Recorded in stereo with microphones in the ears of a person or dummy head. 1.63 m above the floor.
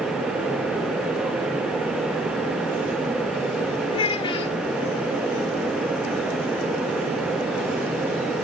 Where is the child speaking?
25° left (ahead or behind), 1.7 m.